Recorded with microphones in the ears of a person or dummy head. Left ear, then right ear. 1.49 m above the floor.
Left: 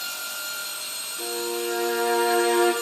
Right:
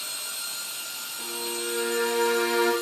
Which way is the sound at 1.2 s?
55° left (ahead or behind).